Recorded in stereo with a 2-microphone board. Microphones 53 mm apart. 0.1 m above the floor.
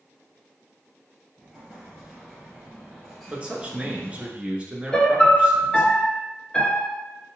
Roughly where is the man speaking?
Right.